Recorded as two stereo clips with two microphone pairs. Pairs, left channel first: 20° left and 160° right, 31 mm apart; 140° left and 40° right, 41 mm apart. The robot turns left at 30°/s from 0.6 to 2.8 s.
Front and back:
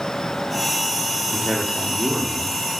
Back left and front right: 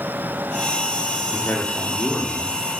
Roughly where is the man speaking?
Behind left.